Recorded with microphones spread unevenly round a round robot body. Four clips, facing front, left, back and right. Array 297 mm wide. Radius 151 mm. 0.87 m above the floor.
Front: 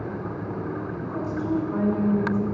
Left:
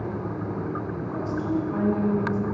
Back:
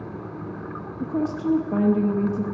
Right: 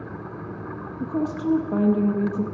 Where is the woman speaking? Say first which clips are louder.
Right 8 dB, back 7 dB; 140° right, 0.8 m.